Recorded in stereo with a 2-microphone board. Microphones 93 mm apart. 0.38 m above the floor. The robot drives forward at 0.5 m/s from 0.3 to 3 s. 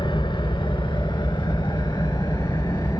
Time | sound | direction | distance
0.0 | an engine running | 55° left (ahead or behind) | 3 m